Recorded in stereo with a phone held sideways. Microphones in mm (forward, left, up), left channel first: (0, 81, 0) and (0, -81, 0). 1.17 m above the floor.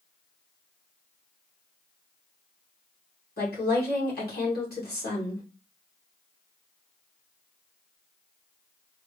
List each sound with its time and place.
3.4 s a woman speaking: 75° left (ahead or behind), 1.9 m